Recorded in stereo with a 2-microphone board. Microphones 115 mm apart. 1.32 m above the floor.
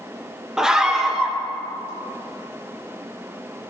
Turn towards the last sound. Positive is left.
turn(degrees=-5)  # may be behind; listen again after turning